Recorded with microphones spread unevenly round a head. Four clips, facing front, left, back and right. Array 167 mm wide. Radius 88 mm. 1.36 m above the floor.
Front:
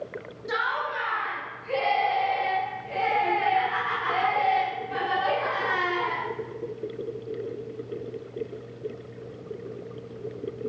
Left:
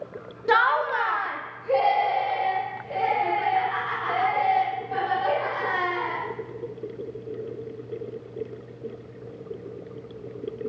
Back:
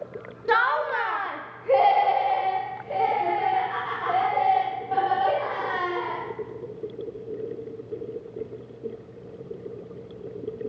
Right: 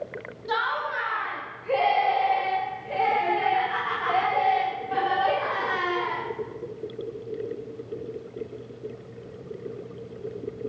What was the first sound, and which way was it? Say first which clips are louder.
Laughter: left 6 dB, back 6 dB; 105° left.